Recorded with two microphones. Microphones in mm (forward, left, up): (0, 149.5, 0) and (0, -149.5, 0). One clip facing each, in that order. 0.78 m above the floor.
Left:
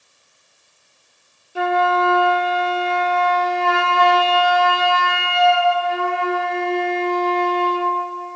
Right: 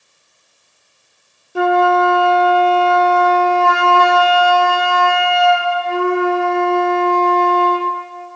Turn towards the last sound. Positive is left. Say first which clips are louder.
# right 6 dB
turn(degrees=-50)  # may be behind; listen again after turning